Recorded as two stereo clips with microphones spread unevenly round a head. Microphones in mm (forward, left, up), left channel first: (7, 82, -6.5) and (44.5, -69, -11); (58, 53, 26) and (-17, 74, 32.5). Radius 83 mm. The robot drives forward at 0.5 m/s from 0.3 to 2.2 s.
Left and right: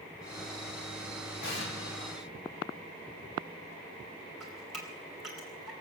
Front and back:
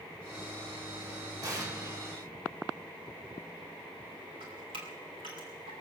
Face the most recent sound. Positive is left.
turn(degrees=-165)